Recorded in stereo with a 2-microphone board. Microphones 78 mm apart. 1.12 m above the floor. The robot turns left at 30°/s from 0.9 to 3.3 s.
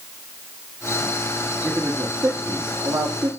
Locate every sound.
1.6 s a man speaking: 35° right (ahead or behind), 1.4 m; by 3.3 s 80° right, 1.4 m